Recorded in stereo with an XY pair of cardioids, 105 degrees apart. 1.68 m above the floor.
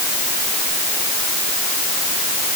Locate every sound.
Only background noise.